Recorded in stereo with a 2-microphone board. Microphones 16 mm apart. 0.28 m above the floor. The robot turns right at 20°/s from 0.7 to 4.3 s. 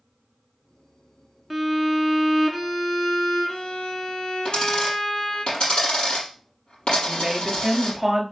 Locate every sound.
1.5 s a violin: 5° right, 1.6 m; by 5.5 s 50° left, 1.6 m
4.5 s a dropped coin: 70° left (ahead or behind), 4.5 m
7.0 s a woman speaking: 10° left (ahead or behind), 5 m